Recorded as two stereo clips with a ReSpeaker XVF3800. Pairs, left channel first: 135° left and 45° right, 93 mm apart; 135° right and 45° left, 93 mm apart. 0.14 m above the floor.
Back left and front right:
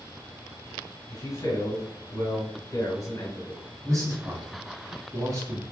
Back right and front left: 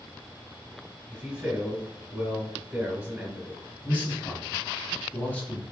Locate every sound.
1.1 s a man speaking: 105° left, 1.6 m
3.8 s a man speaking: 70° right, 1.5 m